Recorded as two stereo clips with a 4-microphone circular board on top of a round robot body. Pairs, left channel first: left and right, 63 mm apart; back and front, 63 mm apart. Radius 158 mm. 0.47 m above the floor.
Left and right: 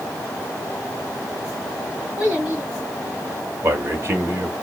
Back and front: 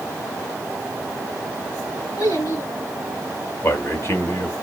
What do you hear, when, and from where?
2.2 s a child speaking: 160° right, 4.5 m
3.6 s a man speaking: 140° right, 2 m